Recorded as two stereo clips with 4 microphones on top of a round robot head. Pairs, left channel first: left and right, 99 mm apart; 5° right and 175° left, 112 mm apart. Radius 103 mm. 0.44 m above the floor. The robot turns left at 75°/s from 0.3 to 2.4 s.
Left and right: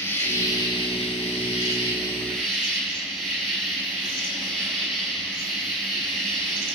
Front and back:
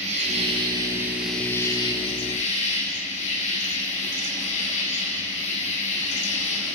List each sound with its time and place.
0.0 s an insect: 155° left, 8 m; by 6.8 s straight ahead, 8 m